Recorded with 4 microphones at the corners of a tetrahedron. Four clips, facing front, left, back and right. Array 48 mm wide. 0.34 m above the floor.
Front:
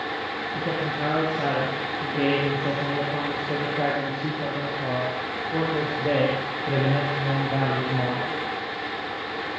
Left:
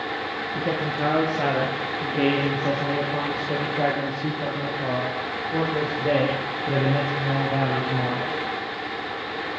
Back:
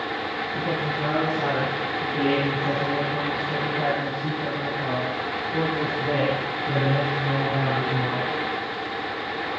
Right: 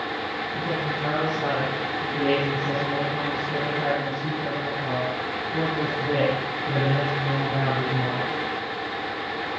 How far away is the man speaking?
About 9 m.